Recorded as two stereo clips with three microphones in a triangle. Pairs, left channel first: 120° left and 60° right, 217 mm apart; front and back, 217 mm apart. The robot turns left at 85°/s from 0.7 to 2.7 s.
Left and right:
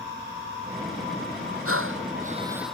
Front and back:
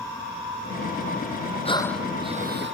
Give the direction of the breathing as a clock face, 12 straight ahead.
2 o'clock.